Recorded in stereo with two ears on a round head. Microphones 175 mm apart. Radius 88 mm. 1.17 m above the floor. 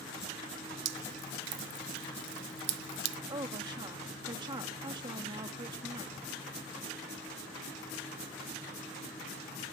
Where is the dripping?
70° right (ahead or behind).